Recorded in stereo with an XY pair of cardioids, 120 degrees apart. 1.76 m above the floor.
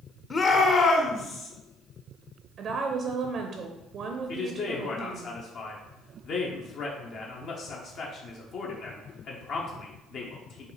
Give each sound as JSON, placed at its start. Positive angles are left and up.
{"t": 0.3, "sound": "a shout", "azimuth_deg": 30, "distance_m": 0.7}
{"t": 2.6, "sound": "a woman speaking", "azimuth_deg": -50, "distance_m": 0.6}
{"t": 4.3, "sound": "a man speaking", "azimuth_deg": 55, "distance_m": 0.9}